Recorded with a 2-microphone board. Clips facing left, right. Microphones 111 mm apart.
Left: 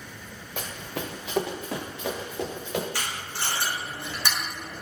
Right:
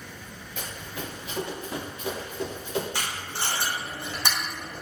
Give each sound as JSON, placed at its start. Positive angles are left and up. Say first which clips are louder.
{"t": 0.6, "sound": "running footsteps", "louder": "left 3 dB", "side_deg": 60, "distance_m": 0.6}
{"t": 2.9, "sound": "tape being pulled", "louder": "right 1 dB", "side_deg": -20, "distance_m": 1.2}